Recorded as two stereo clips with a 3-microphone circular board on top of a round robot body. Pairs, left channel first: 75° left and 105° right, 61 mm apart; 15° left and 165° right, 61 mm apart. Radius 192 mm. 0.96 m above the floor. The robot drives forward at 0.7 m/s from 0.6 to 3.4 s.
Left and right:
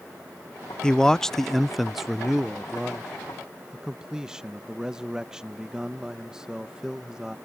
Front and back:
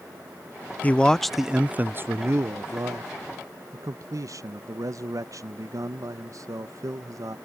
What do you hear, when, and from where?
0.8 s a man speaking: 15° left; by 7.4 s 175° left